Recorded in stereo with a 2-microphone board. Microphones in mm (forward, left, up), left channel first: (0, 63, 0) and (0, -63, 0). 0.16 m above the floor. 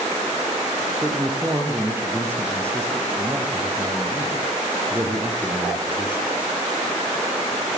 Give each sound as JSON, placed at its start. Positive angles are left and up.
{"t": 1.0, "sound": "a man speaking", "side_deg": -20, "distance_m": 4.0}